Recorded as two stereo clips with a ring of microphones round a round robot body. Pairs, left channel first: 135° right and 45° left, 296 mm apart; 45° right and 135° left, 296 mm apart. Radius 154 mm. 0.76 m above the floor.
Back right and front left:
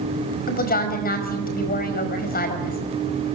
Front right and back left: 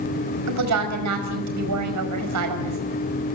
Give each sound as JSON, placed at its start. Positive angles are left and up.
{"t": 0.5, "sound": "a woman speaking", "azimuth_deg": 165, "distance_m": 5.0}